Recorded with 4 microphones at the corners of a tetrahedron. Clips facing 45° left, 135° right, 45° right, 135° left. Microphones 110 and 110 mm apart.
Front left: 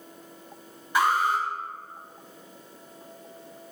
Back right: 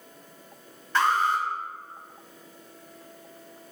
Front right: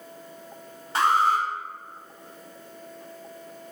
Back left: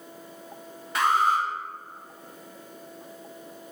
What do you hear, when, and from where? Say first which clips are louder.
0.9 s an alarm: even, front right 1 dB; 25° right, 0.6 m